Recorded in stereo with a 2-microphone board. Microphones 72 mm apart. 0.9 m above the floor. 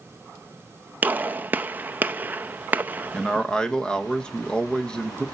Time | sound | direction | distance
1.0 | a gunshot | 25° right (ahead or behind) | 0.5 m
3.1 | a man speaking | 10° left (ahead or behind) | 1.1 m